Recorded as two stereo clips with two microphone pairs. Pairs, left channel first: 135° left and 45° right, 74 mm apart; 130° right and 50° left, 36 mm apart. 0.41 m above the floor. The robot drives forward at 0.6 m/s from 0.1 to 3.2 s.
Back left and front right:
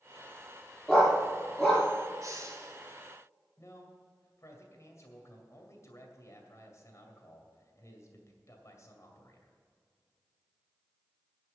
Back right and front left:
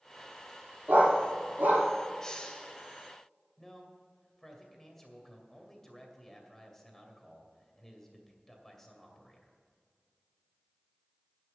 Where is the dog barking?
40° left, 4 m; by 1.9 s 45° left, 4 m.